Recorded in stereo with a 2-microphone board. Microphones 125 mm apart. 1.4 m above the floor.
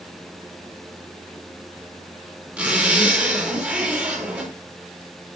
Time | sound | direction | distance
2.6 | a zipper | 10° right (ahead or behind) | 8 m